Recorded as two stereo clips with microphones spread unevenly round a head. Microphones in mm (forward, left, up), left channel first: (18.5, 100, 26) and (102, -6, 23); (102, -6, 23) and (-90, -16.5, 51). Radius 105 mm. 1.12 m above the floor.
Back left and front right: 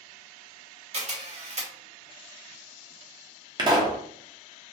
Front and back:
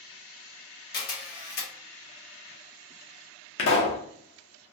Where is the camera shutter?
20° right, 1.2 m.